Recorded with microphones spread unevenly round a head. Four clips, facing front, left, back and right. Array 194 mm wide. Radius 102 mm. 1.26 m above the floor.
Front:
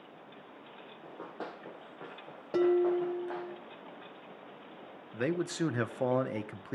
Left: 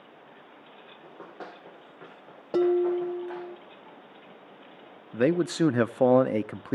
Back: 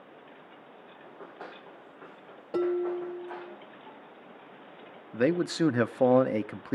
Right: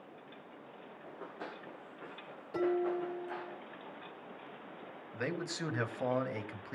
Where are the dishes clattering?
85° left, 1.6 m.